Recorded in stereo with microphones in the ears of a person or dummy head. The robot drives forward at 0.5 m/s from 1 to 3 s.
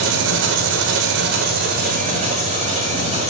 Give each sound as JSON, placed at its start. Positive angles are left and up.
{"t": 0.0, "sound": "an engine running", "side_deg": -70, "distance_m": 0.9}